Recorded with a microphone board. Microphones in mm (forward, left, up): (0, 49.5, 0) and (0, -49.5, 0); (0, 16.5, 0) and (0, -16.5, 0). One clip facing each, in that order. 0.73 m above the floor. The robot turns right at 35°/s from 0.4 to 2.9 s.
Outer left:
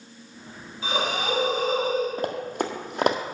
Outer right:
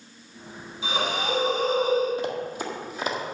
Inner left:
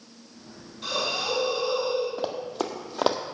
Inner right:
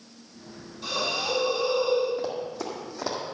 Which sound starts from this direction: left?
Running footsteps, at 2.2 s.